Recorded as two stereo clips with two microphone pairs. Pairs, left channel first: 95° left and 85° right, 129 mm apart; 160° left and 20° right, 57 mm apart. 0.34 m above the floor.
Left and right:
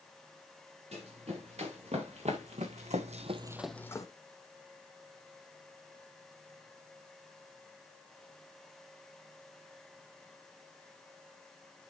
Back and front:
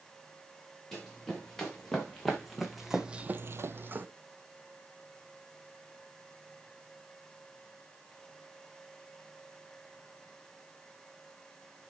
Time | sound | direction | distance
0.9 | running footsteps | 120° right | 3.5 m